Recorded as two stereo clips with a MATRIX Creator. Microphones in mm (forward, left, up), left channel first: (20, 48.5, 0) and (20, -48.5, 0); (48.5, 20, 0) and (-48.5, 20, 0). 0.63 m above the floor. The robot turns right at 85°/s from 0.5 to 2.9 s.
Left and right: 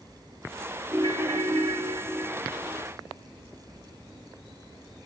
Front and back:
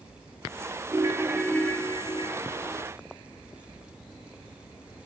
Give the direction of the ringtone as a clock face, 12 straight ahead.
5 o'clock.